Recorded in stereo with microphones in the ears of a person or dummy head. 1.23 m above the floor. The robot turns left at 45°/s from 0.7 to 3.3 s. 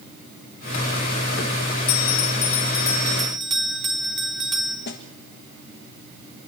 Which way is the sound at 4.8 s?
45° left (ahead or behind).